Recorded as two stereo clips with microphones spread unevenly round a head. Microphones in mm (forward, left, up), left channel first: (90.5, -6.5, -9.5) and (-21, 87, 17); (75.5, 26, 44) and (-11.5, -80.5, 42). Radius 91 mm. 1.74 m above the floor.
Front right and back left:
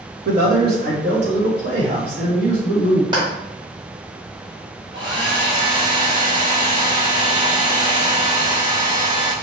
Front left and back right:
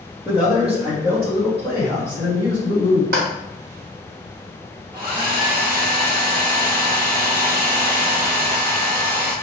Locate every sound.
0.2 s a man speaking: 145° left, 1.4 m; by 3.0 s 160° left, 3 m
3.1 s a clap: 165° right, 1.4 m
4.9 s a hair dryer: 170° left, 1.0 m